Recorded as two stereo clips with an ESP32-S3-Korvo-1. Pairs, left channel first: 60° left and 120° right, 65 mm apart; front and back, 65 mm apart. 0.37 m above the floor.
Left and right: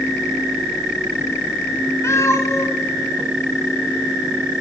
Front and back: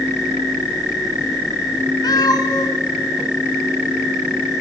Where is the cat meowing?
15° left, 1.3 m.